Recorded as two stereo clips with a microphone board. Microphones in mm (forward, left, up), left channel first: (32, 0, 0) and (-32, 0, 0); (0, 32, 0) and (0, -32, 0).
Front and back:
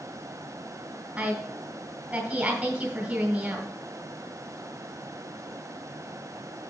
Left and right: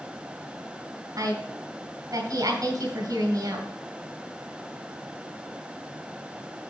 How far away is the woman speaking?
About 3 m.